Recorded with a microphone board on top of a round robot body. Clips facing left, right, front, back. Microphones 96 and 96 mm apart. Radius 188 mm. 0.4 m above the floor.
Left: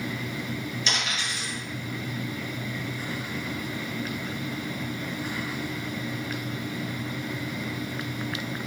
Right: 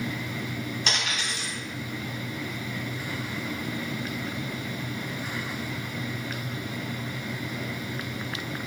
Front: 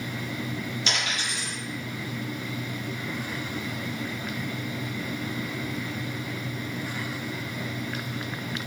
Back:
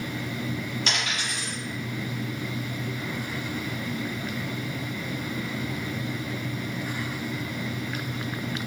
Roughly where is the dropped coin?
Behind right.